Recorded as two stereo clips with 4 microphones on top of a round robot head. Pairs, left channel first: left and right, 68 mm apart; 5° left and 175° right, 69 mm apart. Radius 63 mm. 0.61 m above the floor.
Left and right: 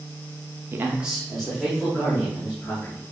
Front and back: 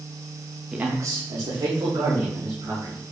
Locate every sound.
0.7 s a man speaking: 105° right, 0.6 m; by 3.0 s 165° left, 3.5 m